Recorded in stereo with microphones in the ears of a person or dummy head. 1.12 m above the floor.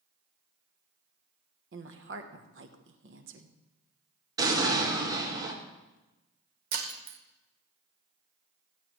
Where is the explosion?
15° right (ahead or behind), 1.6 m.